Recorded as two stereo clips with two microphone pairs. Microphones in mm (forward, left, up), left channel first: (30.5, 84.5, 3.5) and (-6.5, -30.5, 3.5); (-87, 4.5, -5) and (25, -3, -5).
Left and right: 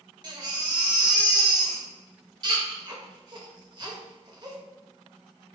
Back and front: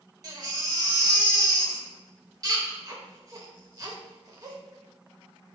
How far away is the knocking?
No knocking in this recording.